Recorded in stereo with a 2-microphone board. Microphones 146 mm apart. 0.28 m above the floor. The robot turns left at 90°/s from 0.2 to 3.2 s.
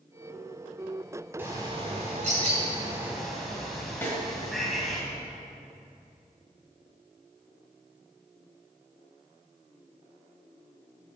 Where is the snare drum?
15° left (ahead or behind), 1.7 m.